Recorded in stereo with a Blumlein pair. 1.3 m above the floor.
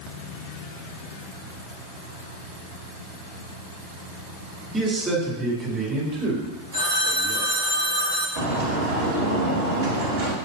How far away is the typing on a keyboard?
I don't hear typing on a keyboard.